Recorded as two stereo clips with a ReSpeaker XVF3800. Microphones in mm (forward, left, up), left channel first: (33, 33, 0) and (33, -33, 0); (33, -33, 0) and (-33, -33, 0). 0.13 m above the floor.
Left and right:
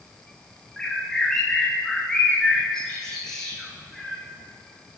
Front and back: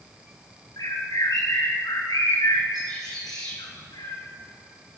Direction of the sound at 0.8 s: 5° left.